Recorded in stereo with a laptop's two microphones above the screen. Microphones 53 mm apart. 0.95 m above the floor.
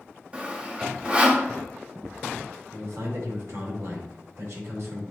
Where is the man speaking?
55° right (ahead or behind), 2.5 m.